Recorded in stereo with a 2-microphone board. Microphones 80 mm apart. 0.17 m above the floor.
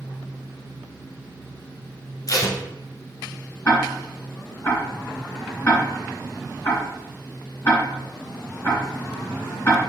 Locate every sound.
2.3 s tape being pulled: 45° left (ahead or behind), 1.2 m
3.6 s ticking: 30° left (ahead or behind), 2.5 m